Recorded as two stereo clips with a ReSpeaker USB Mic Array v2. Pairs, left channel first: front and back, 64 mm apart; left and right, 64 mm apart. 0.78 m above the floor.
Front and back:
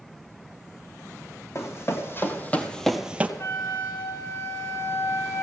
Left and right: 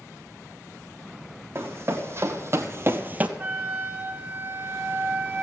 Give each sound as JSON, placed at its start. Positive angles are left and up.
{"t": 1.6, "sound": "running footsteps", "azimuth_deg": -40, "distance_m": 2.0}
{"t": 3.4, "sound": "a flute", "azimuth_deg": -35, "distance_m": 1.6}